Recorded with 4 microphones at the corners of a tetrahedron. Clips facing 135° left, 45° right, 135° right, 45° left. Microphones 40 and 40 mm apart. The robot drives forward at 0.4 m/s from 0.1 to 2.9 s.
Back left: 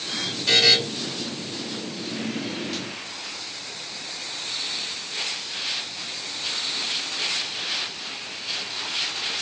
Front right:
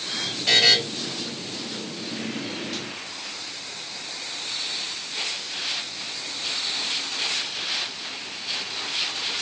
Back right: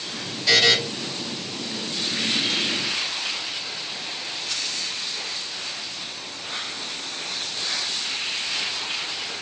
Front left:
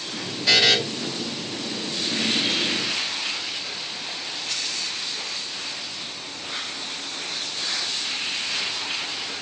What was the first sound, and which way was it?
A buzzer, 25° right.